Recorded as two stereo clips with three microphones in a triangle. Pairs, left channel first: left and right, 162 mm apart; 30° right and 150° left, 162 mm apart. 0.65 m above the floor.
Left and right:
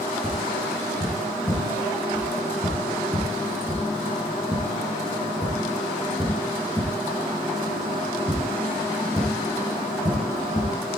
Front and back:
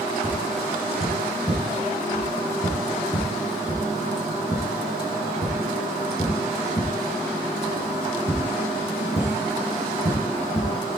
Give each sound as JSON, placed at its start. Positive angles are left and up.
{"t": 0.2, "sound": "tapping", "azimuth_deg": 20, "distance_m": 7.5}